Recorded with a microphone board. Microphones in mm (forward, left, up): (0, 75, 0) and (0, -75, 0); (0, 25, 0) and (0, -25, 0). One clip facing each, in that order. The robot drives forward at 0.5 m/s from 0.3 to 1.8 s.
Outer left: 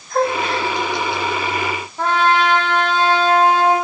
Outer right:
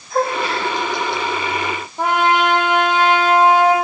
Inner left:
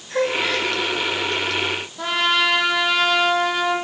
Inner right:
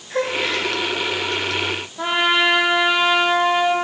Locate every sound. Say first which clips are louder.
0.1 s a gasp: outer left 1 dB, inner left 1 dB; 5° right (ahead or behind), 7 m
2.0 s a trumpet: even, inner right 2 dB; 15° right (ahead or behind), 4.5 m